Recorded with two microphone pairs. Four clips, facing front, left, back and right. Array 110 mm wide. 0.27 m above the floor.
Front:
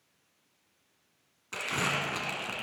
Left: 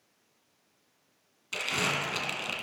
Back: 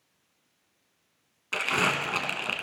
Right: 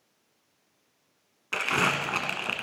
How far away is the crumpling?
About 1.5 m.